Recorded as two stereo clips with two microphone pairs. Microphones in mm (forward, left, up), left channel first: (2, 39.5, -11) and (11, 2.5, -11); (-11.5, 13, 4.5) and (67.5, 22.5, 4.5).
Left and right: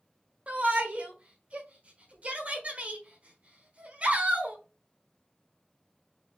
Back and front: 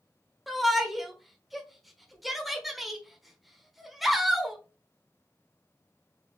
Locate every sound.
0.5 s a shout: 80° right, 1.1 m